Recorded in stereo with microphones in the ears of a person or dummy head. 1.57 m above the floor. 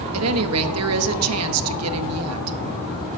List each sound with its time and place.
0.1 s a woman speaking: 75° right (ahead or behind), 1.0 m